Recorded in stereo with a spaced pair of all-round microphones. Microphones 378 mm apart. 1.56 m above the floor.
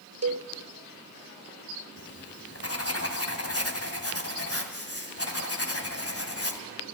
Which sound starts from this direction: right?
A cowbell, at 0.2 s.